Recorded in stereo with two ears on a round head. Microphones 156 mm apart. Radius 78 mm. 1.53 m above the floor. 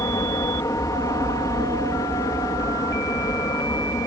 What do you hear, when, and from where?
0.0 s an aircraft: 20° left (ahead or behind)